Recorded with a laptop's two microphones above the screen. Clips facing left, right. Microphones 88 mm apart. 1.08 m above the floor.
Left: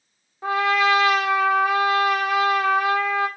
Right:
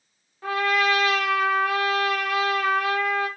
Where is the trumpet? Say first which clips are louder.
Left 3 dB; 20° left (ahead or behind), 0.9 m.